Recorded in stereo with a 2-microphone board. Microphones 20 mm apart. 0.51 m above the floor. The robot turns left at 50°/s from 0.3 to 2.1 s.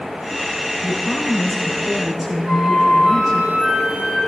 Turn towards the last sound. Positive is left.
turn(degrees=-75)  # may be behind; listen again after turning